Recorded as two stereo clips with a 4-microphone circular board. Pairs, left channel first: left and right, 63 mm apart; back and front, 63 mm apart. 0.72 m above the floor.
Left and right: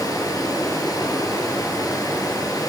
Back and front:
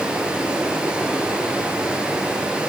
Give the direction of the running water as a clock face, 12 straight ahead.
10 o'clock.